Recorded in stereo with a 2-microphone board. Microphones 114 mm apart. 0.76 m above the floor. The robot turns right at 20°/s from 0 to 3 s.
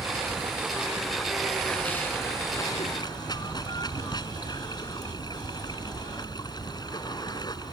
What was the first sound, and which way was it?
Running water, 20° right.